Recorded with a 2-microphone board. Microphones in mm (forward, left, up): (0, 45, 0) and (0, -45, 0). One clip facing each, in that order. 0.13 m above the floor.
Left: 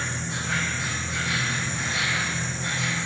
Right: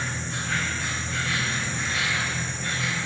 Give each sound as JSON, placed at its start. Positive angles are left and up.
{"t": 0.0, "sound": "an insect", "side_deg": 85, "distance_m": 1.0}